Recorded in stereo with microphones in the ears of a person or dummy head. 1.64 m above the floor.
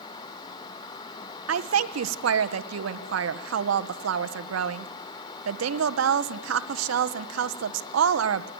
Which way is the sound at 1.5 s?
75° right (ahead or behind).